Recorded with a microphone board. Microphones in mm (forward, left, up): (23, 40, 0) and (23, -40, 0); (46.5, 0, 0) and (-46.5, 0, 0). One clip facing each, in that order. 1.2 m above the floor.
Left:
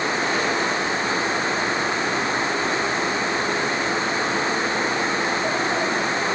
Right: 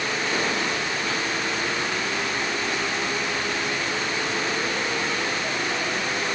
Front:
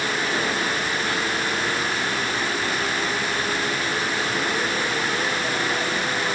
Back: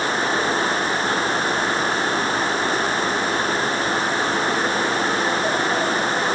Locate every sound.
Only background noise.